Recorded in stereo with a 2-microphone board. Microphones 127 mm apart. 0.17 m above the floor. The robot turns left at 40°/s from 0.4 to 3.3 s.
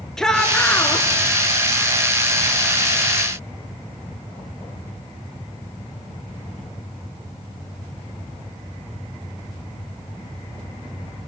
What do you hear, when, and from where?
0.2 s a shout: 5° left (ahead or behind), 3 m; by 1.1 s 25° left (ahead or behind), 3 m